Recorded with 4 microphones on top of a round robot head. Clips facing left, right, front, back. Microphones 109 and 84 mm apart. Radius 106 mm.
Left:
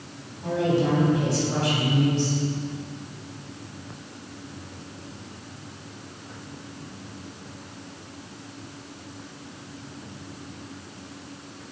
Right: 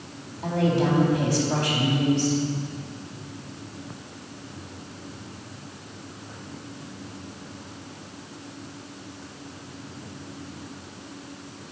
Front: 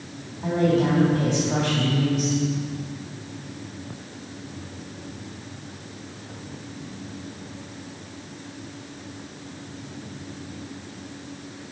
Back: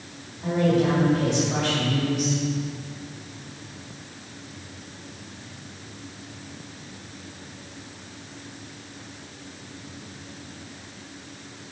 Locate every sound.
0.4 s a woman speaking: 55° right, 3.5 m